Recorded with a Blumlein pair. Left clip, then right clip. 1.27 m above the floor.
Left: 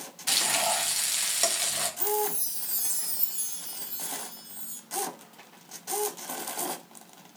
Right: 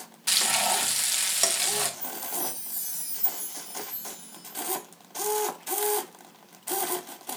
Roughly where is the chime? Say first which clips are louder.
Left 6 dB; ahead left.